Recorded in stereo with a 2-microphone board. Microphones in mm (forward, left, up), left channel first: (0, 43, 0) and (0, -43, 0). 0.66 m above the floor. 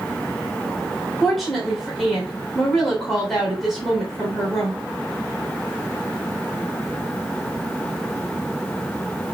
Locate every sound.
1.2 s a woman speaking: centre (ahead or behind), 3 m